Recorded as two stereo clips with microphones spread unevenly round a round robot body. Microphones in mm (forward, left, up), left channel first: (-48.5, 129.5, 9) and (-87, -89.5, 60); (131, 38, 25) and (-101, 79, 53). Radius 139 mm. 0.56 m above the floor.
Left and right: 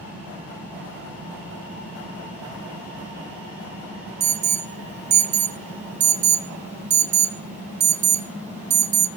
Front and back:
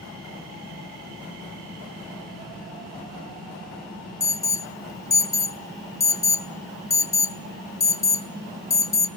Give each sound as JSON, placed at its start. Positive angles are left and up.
{"t": 4.2, "sound": "an alarm", "azimuth_deg": -50, "distance_m": 0.5}